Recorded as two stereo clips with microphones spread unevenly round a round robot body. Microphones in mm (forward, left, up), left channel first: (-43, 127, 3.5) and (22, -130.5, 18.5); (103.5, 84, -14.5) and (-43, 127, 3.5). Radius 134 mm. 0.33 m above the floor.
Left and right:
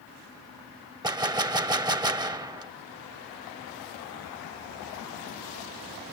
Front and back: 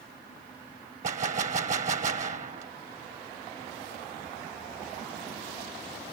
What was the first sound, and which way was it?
A gunshot, 150° right.